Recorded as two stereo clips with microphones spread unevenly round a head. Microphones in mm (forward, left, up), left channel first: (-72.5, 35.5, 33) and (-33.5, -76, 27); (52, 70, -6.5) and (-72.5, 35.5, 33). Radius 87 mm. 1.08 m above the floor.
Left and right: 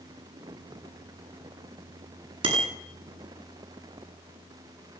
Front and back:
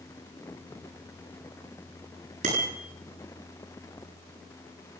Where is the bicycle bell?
110° right, 9.5 m.